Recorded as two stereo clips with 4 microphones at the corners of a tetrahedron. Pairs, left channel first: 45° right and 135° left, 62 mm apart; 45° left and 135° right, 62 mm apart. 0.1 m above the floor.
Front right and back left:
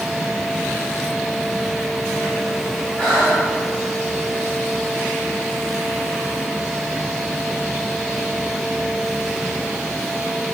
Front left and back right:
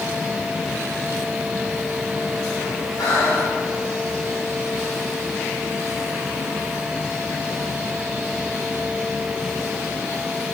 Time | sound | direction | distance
3.0 | breathing | 35° left | 4 m